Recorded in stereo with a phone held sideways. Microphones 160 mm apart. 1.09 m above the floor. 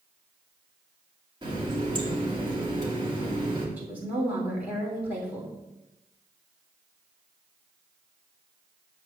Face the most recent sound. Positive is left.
turn(degrees=-10)  # may be behind; listen again after turning